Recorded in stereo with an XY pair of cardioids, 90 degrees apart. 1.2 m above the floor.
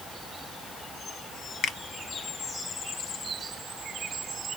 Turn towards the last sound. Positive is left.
turn(degrees=70)